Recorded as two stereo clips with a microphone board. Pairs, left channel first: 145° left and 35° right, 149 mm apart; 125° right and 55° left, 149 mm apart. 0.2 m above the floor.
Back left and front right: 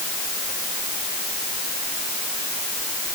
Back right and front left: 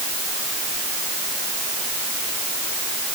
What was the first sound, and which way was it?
Only background noise.